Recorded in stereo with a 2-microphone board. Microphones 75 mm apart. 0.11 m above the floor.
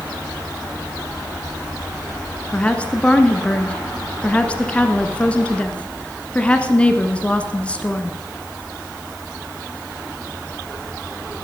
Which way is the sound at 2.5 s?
15° left (ahead or behind).